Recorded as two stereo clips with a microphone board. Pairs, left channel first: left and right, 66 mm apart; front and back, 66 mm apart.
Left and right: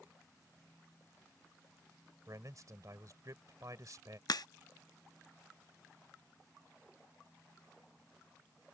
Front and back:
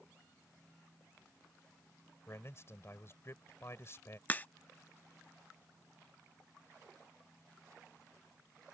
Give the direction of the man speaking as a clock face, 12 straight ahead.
2 o'clock.